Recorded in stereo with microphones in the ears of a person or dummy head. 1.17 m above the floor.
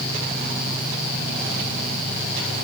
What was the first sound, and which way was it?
Only background noise.